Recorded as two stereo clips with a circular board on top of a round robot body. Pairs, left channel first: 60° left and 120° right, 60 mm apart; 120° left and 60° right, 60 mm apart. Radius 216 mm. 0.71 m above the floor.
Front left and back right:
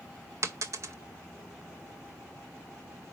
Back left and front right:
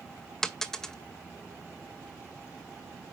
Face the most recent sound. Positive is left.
turn(degrees=-160)